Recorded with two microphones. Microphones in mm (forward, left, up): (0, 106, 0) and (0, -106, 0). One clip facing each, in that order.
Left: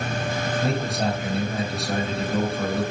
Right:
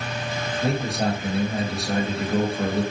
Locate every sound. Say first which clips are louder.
0.6 s a man speaking: right 3 dB; centre (ahead or behind), 1.0 m